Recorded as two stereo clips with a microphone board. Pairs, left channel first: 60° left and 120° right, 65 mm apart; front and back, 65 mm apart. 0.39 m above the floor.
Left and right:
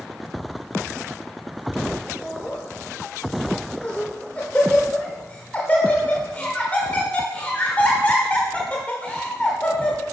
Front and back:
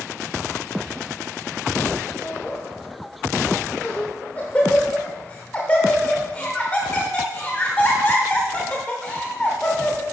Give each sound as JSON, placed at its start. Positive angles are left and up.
{"t": 2.2, "sound": "laughter", "azimuth_deg": 40, "distance_m": 0.9}